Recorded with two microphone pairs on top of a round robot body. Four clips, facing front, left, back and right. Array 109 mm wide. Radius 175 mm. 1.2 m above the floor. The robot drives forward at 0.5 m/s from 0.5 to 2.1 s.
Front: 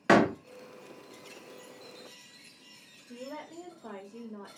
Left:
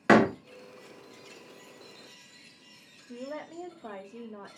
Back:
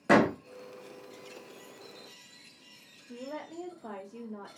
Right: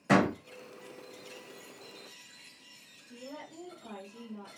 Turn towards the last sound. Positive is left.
turn(degrees=115)